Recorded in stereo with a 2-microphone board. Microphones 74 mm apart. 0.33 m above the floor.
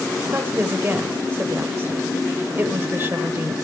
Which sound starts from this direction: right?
A woman speaking, at 0.3 s.